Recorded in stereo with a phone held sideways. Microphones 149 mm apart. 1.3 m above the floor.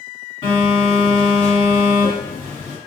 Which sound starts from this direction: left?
A phone buzzing, at 0.4 s.